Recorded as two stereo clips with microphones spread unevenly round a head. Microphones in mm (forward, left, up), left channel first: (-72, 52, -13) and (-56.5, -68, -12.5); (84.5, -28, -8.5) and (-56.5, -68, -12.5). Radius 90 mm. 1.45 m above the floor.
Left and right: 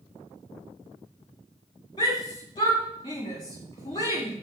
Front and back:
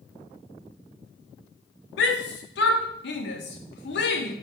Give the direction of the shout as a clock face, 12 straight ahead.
11 o'clock.